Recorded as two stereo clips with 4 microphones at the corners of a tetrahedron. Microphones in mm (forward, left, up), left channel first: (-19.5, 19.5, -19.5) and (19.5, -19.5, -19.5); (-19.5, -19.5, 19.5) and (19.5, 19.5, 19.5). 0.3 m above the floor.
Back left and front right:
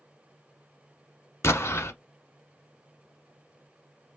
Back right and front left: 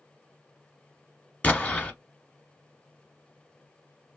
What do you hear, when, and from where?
1.4 s an explosion: 165° left, 0.9 m